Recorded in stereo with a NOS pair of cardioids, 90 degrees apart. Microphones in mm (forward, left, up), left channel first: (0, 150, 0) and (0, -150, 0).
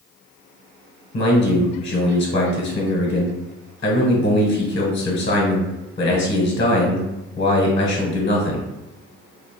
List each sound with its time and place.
1.1 s a man speaking: 40° left, 0.8 m